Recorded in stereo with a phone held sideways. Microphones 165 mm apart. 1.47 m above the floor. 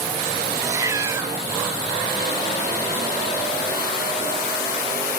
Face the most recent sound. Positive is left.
turn(degrees=-20)  # may be behind; listen again after turning